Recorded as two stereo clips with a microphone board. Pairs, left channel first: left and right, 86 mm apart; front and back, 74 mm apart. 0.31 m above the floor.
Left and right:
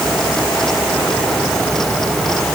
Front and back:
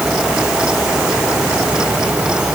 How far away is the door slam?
I don't hear a door slam.